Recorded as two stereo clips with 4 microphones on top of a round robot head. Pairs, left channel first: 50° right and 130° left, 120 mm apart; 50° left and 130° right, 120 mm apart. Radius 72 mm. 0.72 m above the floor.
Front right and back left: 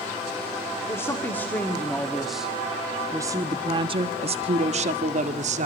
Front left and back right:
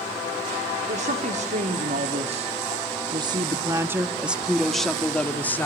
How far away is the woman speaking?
About 2 m.